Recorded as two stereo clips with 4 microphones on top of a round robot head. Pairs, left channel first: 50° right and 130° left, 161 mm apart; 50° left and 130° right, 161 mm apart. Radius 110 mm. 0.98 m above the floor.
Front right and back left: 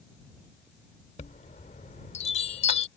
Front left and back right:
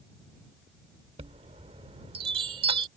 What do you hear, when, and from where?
1.2 s a chime: 85° right